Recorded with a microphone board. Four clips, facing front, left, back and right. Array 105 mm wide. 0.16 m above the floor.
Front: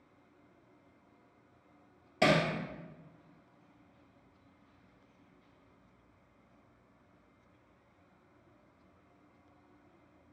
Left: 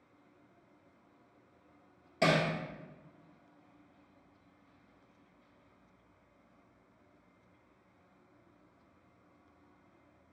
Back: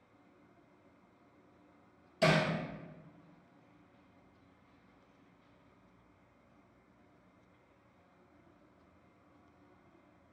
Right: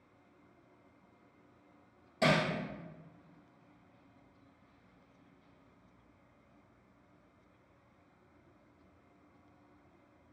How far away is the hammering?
About 1.2 m.